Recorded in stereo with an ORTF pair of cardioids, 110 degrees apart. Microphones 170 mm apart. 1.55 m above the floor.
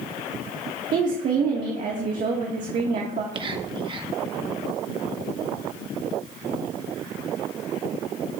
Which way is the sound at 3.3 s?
30° right.